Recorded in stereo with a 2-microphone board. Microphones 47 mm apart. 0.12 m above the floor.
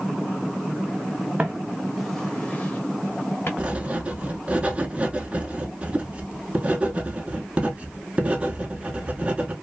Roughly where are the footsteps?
Right.